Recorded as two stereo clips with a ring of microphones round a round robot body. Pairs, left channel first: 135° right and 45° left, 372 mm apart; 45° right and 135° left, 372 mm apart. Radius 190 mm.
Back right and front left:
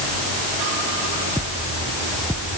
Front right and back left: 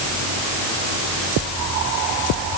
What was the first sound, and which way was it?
Only background noise.